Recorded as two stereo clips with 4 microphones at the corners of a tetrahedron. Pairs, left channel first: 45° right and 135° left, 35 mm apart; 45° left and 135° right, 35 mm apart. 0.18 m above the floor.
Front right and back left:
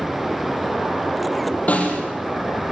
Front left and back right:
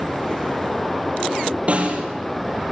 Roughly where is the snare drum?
Right.